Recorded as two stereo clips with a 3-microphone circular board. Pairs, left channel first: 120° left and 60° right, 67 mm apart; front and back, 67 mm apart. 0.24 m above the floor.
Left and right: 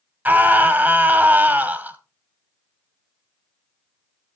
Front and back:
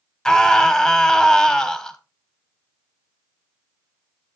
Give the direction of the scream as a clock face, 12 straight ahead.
2 o'clock.